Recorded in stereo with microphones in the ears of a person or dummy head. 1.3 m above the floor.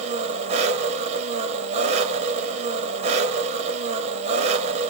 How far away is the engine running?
About 0.8 m.